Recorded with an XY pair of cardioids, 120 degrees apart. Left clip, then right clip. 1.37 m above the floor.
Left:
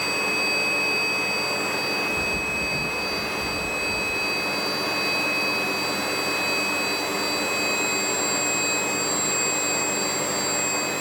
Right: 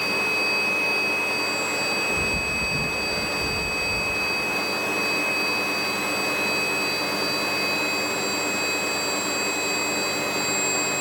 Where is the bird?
20° right.